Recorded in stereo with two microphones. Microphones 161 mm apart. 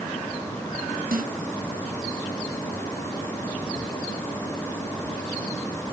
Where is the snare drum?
75° right (ahead or behind).